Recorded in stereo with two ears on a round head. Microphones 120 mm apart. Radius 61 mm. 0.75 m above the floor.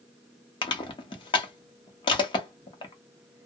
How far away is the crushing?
About 0.7 m.